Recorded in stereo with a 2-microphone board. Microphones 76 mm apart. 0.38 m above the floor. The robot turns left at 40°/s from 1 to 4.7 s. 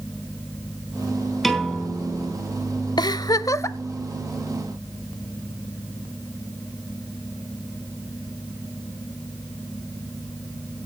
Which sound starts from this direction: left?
A giggle, at 3.0 s.